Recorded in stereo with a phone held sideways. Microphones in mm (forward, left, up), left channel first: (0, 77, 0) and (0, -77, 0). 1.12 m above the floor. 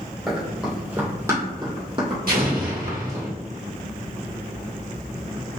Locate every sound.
0.3 s running footsteps: centre (ahead or behind), 1.8 m; by 3.2 s 50° right (ahead or behind), 2 m
2.3 s an explosion: 70° right (ahead or behind), 1.5 m